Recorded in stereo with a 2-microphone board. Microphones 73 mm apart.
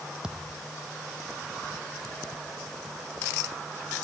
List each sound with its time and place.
0.2 s a thud: 10° right (ahead or behind)